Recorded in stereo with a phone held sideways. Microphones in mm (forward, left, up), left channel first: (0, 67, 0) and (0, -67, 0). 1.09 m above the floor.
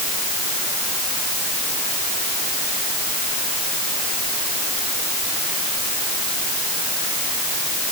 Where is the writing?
I don't hear writing.